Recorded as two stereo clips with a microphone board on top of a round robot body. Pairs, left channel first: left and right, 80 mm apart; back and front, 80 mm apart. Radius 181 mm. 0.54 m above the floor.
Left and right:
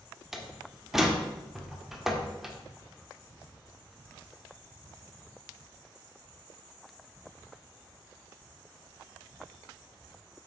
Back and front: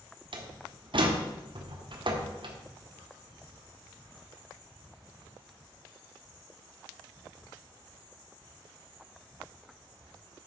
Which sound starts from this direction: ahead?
A door slam, at 0.3 s.